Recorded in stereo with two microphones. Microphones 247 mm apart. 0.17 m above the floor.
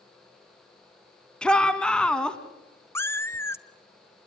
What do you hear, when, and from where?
1.4 s a shout: 5° left (ahead or behind), 1.7 m
3.0 s a cat meowing: 10° left (ahead or behind), 0.7 m